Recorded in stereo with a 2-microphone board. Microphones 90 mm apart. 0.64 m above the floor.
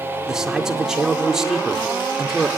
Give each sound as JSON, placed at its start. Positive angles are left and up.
{"t": 0.3, "sound": "a man speaking", "side_deg": -5, "distance_m": 2.0}